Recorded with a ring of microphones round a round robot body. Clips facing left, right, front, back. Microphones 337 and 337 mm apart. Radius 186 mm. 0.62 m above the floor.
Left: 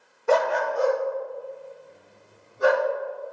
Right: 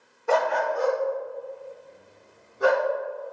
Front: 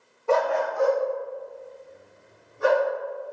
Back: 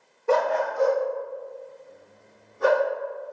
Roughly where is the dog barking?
Left.